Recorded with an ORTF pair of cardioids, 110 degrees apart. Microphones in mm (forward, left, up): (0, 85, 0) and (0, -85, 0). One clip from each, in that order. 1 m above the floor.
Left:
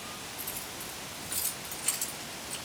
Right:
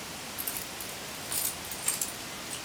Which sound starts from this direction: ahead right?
Keys jangling, at 0.4 s.